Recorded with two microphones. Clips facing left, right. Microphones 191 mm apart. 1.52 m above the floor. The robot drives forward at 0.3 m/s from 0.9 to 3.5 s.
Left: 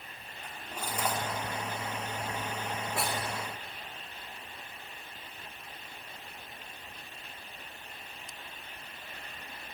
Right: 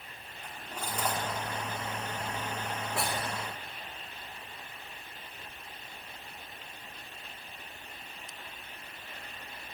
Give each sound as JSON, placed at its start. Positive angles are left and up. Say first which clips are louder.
{"t": 0.4, "sound": "cutlery clinking", "louder": "even", "side_deg": 10, "distance_m": 1.9}